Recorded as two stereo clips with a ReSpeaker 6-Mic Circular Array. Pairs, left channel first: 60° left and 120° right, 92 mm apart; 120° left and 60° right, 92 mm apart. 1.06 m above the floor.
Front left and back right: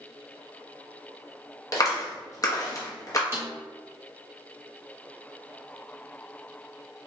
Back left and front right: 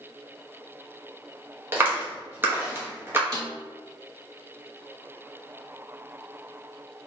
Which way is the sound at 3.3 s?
75° right.